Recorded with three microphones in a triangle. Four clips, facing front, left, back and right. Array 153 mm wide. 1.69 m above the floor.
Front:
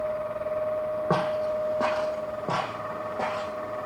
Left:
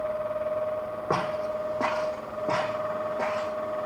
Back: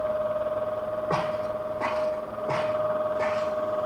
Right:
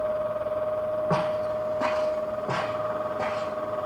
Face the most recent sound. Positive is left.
turn(degrees=30)